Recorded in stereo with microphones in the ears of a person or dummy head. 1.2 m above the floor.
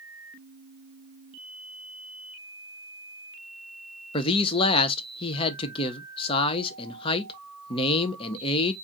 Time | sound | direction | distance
4.1 | a man speaking | 25° left (ahead or behind) | 0.6 m